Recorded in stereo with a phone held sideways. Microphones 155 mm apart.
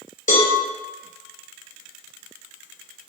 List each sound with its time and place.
0.3 s a cowbell: 55° left (ahead or behind), 0.7 m